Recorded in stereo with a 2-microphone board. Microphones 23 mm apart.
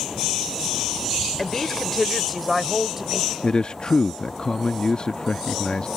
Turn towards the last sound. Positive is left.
turn(degrees=40)  # may be behind; listen again after turning